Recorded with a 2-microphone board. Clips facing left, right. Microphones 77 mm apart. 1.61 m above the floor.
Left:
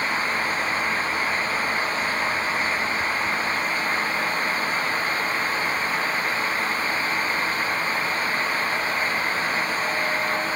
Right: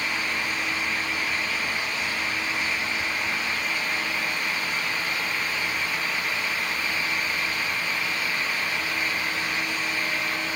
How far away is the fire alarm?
No fire alarm in this recording.